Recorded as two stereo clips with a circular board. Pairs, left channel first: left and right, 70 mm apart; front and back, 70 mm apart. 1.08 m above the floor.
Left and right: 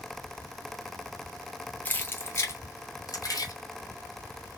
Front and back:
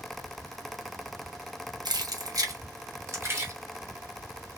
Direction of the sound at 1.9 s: 160° left.